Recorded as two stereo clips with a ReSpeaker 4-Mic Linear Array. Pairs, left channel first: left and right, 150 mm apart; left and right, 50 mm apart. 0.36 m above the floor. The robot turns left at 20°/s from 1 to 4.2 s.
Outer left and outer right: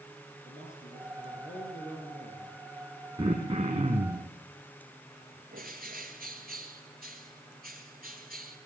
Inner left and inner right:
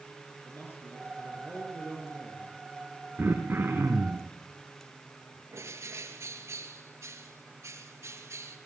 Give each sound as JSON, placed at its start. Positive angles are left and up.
{"t": 0.5, "sound": "a man speaking", "azimuth_deg": 55, "distance_m": 5.0}
{"t": 3.2, "sound": "throat clearing", "side_deg": -25, "distance_m": 4.0}
{"t": 5.5, "sound": "a bird", "side_deg": -80, "distance_m": 3.0}